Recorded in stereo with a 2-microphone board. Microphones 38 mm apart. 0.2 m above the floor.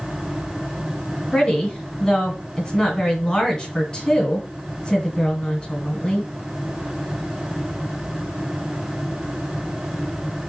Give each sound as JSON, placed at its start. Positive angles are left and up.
{"t": 1.3, "sound": "a woman speaking", "side_deg": 20, "distance_m": 1.5}